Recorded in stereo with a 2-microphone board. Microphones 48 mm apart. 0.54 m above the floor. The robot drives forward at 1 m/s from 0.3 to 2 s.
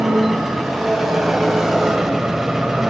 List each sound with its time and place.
0.0 s an engine running: 5° right (ahead or behind), 4 m; by 2.9 s 10° right (ahead or behind), 2.5 m